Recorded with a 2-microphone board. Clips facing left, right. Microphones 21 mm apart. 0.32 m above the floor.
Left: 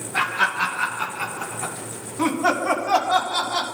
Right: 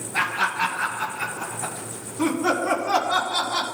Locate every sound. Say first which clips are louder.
0.1 s laughter: left 2 dB; 30° left (ahead or behind), 4 m; by 3.6 s 55° left (ahead or behind), 2 m